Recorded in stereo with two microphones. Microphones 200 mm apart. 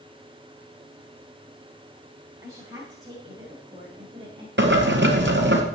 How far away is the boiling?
About 1.9 m.